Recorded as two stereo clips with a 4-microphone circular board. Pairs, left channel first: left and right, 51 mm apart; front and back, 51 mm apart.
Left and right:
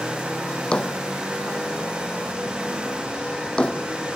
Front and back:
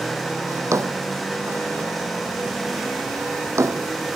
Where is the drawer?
160° left.